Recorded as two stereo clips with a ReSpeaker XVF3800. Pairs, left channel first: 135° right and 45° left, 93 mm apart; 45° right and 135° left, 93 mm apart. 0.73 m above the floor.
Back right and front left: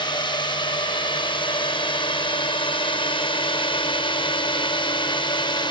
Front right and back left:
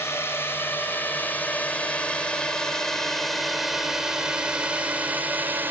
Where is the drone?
105° right; by 5.7 s 160° right.